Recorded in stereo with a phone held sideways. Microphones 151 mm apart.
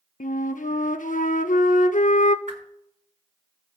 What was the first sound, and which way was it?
A flute, 70° left (ahead or behind).